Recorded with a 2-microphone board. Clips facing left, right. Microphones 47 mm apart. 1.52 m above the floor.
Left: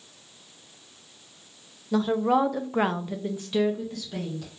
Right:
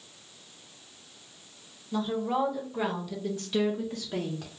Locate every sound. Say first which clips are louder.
1.9 s a woman speaking: left 6 dB; 80° left, 0.9 m; by 4.5 s 30° right (ahead or behind), 1.0 m